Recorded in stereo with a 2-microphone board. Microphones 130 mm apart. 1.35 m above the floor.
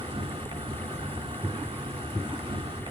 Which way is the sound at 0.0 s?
45° right (ahead or behind).